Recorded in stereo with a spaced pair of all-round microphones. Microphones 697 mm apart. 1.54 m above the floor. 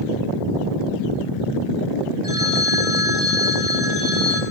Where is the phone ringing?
50° left (ahead or behind), 6.5 m.